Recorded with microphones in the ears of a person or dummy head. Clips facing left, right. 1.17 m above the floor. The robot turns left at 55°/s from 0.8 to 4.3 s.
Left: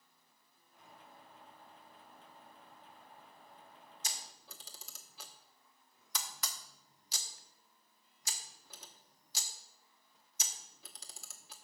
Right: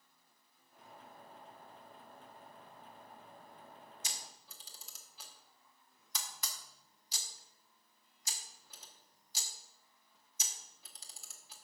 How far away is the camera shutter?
About 1.0 m.